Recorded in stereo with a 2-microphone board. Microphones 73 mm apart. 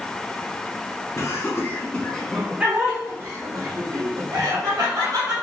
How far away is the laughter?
About 1.1 m.